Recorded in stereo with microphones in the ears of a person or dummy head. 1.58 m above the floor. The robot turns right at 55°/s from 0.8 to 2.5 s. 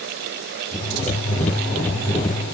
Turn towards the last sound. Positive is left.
No sound to turn to.